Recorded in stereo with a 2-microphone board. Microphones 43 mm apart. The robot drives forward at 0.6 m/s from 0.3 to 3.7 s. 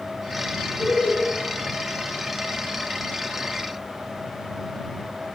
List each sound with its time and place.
0.8 s laughter: 45° left (ahead or behind), 9.5 m